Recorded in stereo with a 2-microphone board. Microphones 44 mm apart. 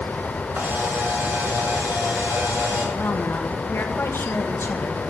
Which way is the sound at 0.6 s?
85° right.